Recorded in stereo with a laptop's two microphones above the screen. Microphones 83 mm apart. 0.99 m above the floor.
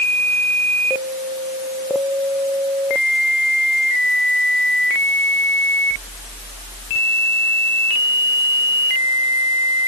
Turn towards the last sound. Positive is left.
No sound to turn to.